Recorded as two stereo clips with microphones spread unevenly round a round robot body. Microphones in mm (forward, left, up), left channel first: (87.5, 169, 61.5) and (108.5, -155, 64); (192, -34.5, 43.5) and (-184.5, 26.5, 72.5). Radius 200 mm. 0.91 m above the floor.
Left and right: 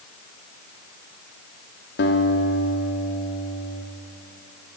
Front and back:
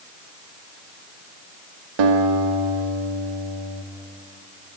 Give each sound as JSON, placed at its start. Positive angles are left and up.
{"t": 2.0, "sound": "a guitar", "azimuth_deg": 155, "distance_m": 2.5}